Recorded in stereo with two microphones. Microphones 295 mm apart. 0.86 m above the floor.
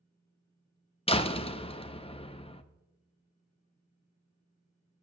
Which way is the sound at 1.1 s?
20° left (ahead or behind).